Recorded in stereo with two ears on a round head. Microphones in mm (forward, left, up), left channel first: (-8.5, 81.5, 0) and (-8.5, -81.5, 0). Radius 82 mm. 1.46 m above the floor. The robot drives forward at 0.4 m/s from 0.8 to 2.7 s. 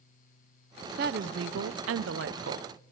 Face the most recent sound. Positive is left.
turn(degrees=-55)  # may be behind; listen again after turning